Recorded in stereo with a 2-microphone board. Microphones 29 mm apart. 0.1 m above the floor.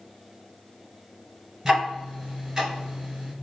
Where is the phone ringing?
No phone ringing in this recording.